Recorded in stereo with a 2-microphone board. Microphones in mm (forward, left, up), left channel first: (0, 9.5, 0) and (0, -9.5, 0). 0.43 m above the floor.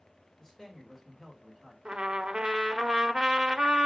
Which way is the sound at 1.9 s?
50° right (ahead or behind).